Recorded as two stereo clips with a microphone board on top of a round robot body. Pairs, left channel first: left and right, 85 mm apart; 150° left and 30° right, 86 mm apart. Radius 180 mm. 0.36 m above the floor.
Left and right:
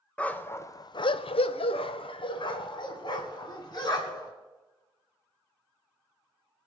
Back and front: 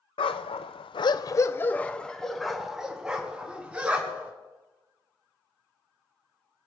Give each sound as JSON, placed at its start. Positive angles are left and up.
{"t": 0.2, "sound": "a dog barking", "azimuth_deg": 165, "distance_m": 0.7}